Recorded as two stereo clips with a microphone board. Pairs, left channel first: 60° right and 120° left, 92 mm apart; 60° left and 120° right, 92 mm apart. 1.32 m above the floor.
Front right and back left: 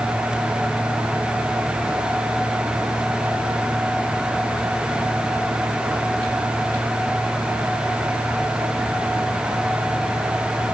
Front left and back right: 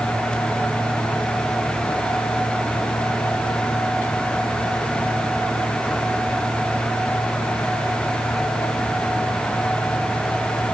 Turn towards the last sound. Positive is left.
No sound to turn to.